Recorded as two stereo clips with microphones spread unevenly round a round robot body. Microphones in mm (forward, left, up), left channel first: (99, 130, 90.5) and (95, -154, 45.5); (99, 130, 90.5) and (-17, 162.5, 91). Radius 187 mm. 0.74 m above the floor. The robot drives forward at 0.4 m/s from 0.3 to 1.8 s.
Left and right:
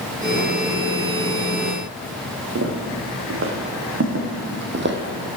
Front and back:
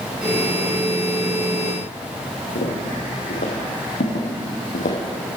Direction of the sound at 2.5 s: 50° right.